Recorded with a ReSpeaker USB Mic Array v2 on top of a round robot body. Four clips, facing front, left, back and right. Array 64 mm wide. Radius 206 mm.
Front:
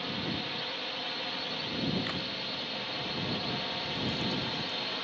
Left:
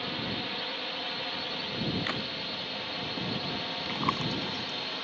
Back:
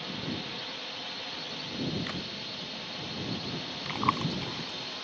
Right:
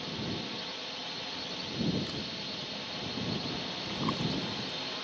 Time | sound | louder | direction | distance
0.0 | a drone | left 3 dB, front 1 dB | 70° left | ?
2.0 | a crack | left 5 dB, front 1 dB | 90° left | ?
3.9 | chewing | left 3 dB, back 8 dB | 155° left | ?